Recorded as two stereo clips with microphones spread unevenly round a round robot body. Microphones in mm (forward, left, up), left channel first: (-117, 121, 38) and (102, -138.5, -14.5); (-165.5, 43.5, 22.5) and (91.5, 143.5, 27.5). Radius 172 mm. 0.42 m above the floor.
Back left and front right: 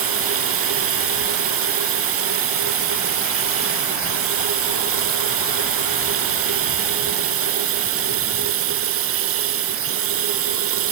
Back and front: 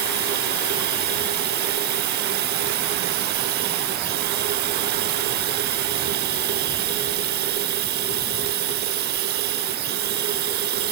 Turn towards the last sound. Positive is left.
turn(degrees=-25)